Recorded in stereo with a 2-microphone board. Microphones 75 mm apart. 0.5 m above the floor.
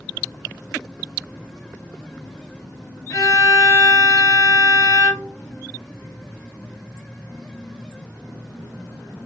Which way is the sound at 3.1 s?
30° left (ahead or behind).